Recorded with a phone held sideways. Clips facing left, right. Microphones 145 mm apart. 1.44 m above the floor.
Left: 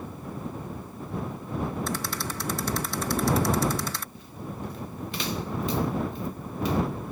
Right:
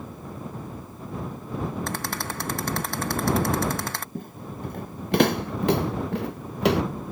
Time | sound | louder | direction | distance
1.9 | a rattle | right 1 dB | 60° right (ahead or behind) | ?
4.2 | footsteps | right 2 dB | 55° right (ahead or behind) | ?